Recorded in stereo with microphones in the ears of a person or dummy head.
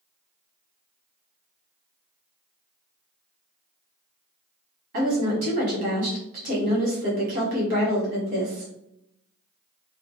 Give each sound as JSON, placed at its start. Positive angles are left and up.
{"t": 4.9, "sound": "a woman speaking", "side_deg": -50, "distance_m": 1.2}